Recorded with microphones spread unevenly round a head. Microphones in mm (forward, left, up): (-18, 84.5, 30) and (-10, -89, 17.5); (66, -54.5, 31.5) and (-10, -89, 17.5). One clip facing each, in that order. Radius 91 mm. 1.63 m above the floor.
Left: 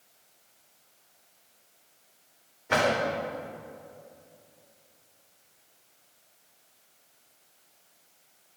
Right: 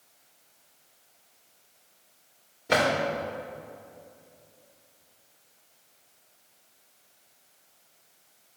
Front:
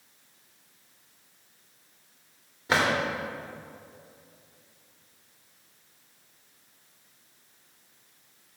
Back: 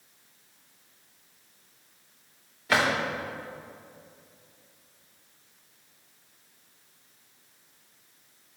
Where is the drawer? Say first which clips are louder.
Right 1 dB, even; 35° right, 4 m.